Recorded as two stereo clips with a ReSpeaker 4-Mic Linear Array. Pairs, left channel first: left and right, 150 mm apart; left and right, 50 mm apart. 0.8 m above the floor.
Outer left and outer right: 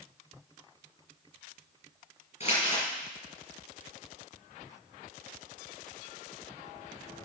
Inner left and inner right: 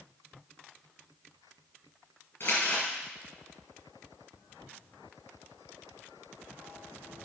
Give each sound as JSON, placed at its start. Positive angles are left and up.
{"t": 2.4, "sound": "crumpling", "side_deg": 45, "distance_m": 5.0}